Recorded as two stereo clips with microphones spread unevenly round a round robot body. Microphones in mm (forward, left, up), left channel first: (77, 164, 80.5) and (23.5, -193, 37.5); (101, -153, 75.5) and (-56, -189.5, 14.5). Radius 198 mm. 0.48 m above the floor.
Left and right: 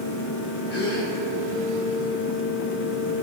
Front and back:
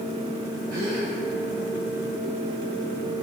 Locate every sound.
0.7 s a gasp: 145° left, 1.8 m